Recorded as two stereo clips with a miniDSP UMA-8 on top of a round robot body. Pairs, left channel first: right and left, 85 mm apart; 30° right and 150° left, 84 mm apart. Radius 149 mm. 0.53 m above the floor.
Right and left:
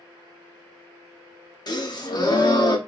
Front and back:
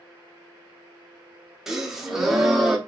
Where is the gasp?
125° right, 1.0 m.